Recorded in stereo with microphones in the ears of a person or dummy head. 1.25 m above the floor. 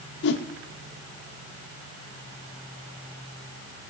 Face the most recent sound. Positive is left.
turn(degrees=65)  # may be behind; listen again after turning